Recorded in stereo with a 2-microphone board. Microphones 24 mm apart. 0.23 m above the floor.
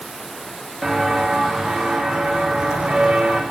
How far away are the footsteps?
About 5.5 m.